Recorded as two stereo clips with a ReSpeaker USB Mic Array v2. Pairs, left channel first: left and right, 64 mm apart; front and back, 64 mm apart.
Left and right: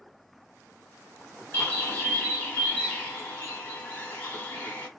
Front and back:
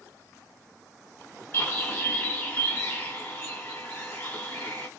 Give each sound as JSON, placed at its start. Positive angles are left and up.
{"t": 1.5, "sound": "a bird", "azimuth_deg": 45, "distance_m": 1.3}